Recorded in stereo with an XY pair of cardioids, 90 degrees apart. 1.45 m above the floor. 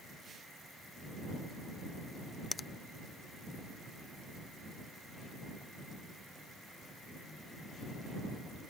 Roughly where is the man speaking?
I don't hear a man speaking.